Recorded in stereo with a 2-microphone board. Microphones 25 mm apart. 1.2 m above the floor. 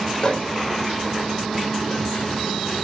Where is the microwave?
45° left (ahead or behind), 4 m.